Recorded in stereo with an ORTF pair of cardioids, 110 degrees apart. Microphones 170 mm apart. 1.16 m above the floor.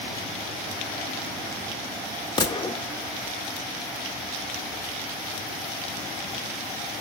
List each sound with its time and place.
2.4 s a gunshot: 25° left, 1.6 m